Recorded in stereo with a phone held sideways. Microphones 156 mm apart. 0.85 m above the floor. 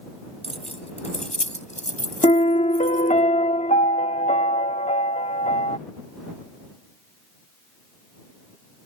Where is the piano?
55° left (ahead or behind).